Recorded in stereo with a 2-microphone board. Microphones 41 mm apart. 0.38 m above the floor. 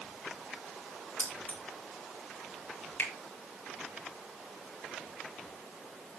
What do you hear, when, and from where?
1.2 s keys jangling: 50° left (ahead or behind), 7 m
3.0 s a finger snap: 80° left, 10 m